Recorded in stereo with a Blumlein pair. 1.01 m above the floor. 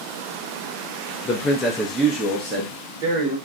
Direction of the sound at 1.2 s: 25° left.